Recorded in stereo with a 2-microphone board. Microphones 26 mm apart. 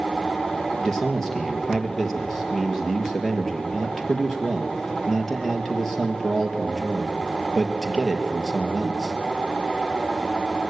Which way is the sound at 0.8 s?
15° left (ahead or behind).